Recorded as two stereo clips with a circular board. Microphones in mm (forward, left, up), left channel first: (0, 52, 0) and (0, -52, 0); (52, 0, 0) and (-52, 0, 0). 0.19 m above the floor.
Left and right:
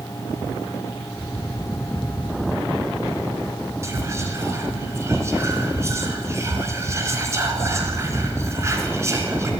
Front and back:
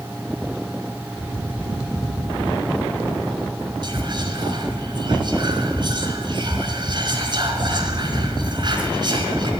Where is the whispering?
145° right, 3 m.